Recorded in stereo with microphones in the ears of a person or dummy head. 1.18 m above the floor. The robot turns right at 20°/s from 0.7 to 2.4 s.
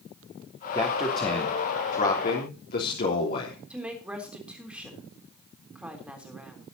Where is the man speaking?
25° left, 3 m; by 3.6 s 55° left, 3 m.